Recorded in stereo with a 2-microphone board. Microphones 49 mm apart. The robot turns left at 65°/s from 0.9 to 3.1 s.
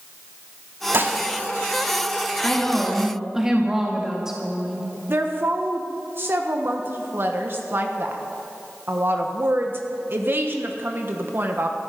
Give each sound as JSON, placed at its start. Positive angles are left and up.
{"t": 0.9, "sound": "dishes clattering", "side_deg": -55, "distance_m": 1.5}
{"t": 2.4, "sound": "a woman speaking", "azimuth_deg": 35, "distance_m": 1.7}
{"t": 5.1, "sound": "a woman speaking", "side_deg": -50, "distance_m": 1.3}